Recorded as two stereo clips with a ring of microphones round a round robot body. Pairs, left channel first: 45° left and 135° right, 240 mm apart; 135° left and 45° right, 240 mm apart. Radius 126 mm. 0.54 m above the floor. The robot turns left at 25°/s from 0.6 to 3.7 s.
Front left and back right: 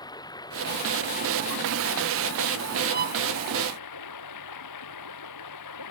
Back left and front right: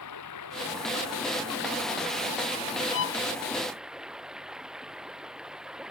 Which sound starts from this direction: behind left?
Running water, at 0.0 s.